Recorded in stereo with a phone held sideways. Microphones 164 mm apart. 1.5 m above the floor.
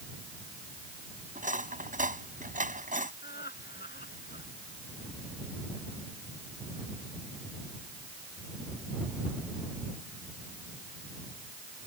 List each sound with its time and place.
1.4 s cutlery clinking: 55° right (ahead or behind)
3.2 s laughter: 85° left